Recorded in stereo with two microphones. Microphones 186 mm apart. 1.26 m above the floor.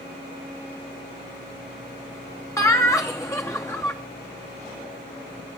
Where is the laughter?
15° left (ahead or behind), 0.9 m.